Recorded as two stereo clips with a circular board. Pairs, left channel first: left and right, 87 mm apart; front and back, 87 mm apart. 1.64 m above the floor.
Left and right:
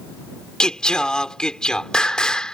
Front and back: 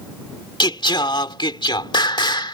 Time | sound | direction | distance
0.6 | singing | 10° left | ?